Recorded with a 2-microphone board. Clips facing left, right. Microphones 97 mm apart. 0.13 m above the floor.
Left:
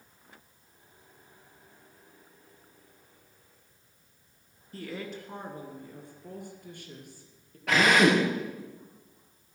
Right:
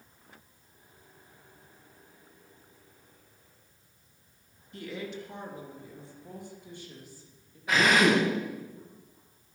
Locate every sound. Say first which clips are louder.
4.7 s a woman speaking: even; 35° left (ahead or behind), 2.0 m; by 7.6 s 65° left (ahead or behind), 3.5 m
7.7 s a drill: left 1 dB; 80° left, 6 m